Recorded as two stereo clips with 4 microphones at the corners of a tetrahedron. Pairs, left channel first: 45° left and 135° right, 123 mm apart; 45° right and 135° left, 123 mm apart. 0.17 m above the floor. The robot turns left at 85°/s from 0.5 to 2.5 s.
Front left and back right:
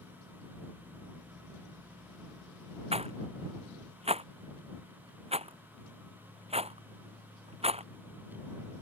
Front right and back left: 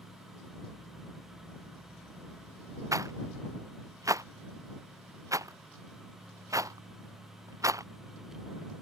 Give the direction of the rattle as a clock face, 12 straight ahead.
5 o'clock.